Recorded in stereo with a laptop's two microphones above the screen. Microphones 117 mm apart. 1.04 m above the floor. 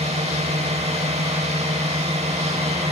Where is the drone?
65° right (ahead or behind); by 2.9 s 60° right (ahead or behind).